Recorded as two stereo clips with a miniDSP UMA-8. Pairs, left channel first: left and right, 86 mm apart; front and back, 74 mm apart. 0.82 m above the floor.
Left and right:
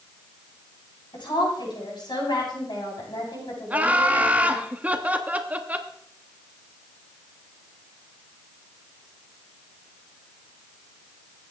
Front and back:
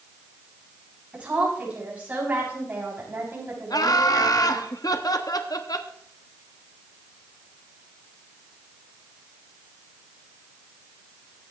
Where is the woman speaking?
110° left, 7 m; by 4.7 s 125° left, 6.5 m.